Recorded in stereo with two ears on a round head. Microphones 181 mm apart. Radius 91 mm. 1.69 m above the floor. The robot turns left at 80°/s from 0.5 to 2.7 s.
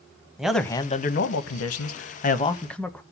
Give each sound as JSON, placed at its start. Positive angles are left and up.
{"t": 0.4, "sound": "a man speaking", "azimuth_deg": 180, "distance_m": 1.1}